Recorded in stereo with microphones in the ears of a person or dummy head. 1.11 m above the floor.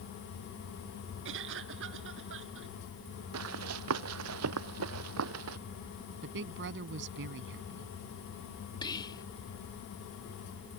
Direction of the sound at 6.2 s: 65° right (ahead or behind).